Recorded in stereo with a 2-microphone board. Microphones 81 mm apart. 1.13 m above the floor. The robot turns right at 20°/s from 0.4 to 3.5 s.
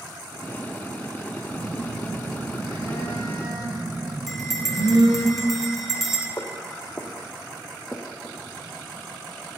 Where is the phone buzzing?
125° right, 1.4 m; by 5.3 s 85° right, 1.4 m.